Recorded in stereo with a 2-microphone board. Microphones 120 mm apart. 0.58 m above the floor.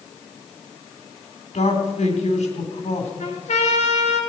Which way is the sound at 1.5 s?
65° left (ahead or behind).